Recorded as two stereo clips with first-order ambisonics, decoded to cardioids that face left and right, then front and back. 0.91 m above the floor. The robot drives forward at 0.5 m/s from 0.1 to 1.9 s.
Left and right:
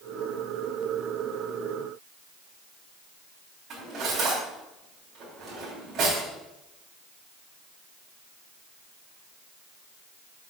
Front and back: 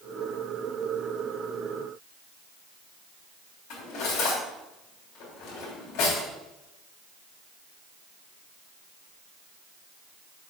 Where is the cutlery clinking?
35° right, 3.5 m.